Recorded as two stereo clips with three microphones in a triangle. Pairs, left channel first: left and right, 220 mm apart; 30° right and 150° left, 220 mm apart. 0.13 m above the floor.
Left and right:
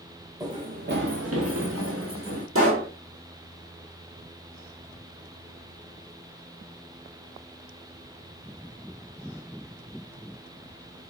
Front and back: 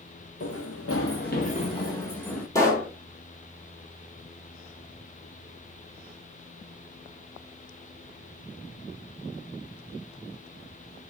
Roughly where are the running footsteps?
Ahead.